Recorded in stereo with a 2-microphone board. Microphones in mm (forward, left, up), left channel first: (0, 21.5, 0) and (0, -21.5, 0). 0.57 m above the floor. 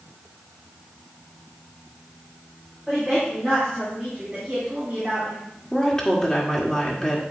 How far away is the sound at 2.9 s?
About 4 m.